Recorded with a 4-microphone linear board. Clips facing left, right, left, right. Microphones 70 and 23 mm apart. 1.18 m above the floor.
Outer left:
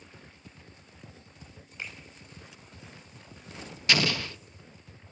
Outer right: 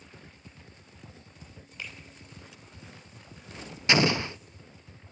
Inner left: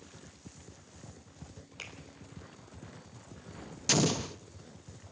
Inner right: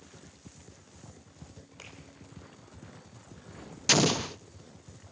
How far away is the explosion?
About 0.6 m.